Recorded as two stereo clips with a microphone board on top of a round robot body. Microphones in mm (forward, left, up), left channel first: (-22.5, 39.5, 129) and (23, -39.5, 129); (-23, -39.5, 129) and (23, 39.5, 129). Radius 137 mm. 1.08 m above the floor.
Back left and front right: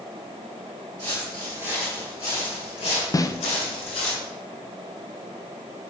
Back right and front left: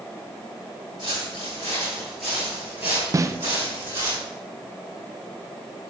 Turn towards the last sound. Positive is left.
turn(degrees=95)